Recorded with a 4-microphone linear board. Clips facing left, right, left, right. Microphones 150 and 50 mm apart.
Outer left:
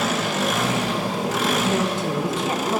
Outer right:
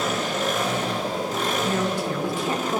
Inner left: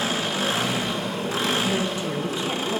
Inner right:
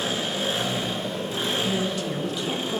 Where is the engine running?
80° left, 1.0 m.